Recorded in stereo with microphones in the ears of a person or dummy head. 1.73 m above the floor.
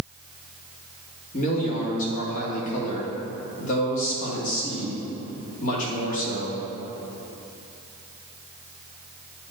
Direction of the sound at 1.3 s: 45° left (ahead or behind).